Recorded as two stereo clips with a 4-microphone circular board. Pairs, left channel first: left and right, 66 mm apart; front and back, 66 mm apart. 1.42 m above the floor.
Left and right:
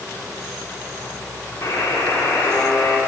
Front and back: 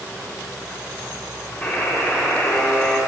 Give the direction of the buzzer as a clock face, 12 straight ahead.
10 o'clock.